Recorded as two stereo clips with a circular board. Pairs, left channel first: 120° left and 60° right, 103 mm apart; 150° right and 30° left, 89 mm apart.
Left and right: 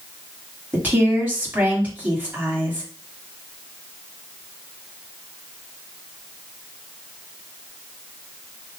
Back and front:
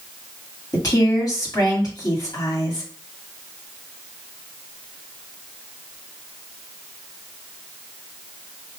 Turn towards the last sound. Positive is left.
turn(degrees=-130)